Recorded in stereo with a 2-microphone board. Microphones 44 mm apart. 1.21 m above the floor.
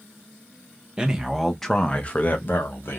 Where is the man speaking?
20° right (ahead or behind), 0.9 m; by 3.0 s 60° left (ahead or behind), 1.1 m.